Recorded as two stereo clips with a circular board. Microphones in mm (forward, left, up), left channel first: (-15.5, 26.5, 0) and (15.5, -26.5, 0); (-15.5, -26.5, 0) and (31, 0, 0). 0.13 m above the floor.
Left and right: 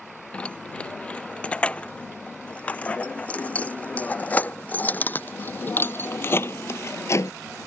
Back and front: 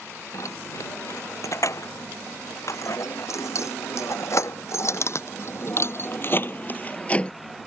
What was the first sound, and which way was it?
Keys jangling, 170° right.